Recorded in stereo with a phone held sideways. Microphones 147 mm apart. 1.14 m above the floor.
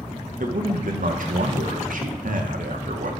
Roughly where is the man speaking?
Right.